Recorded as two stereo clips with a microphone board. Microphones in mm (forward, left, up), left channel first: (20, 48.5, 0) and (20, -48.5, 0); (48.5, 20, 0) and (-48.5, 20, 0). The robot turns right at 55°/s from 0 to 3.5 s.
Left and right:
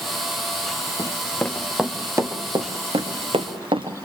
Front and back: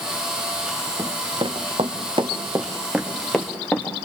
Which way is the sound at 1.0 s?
135° left.